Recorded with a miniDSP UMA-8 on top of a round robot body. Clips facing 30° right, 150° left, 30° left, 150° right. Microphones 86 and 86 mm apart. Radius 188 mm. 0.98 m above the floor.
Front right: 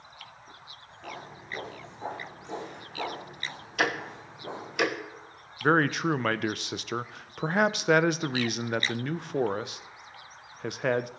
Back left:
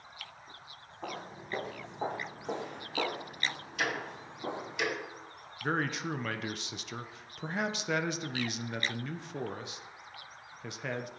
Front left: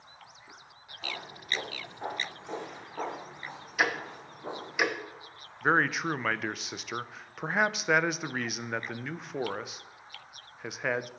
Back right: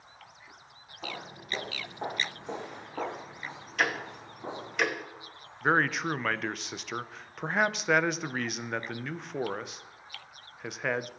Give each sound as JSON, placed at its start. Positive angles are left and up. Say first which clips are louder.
{"t": 1.0, "sound": "footsteps", "louder": "back left 1 dB, even", "azimuth_deg": 135, "distance_m": 4.0}
{"t": 3.8, "sound": "ticking", "louder": "front right 6 dB, even", "azimuth_deg": -50, "distance_m": 1.2}
{"t": 5.6, "sound": "a man speaking", "louder": "front right 9 dB, even", "azimuth_deg": -60, "distance_m": 0.5}